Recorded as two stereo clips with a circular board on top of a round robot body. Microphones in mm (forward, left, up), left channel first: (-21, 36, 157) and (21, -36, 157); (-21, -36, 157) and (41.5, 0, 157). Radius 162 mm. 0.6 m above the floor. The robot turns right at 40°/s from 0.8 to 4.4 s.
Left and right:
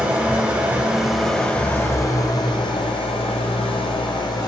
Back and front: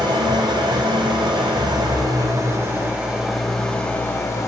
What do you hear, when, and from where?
0.0 s an engine running: 15° left, 1.0 m; by 4.5 s 160° left, 1.0 m